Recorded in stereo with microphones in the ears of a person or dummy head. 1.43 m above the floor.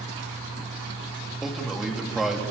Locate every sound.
1.4 s a man speaking: 5° right (ahead or behind), 3 m